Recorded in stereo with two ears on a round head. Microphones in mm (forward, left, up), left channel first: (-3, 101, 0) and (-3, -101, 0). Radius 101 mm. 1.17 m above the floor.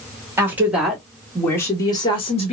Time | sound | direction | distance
0.4 | a woman speaking | 10° right (ahead or behind) | 2 m